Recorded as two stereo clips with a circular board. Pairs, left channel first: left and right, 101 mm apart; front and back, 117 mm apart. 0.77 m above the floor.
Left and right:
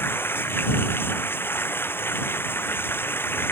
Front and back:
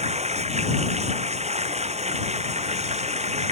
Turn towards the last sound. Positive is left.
turn(degrees=160)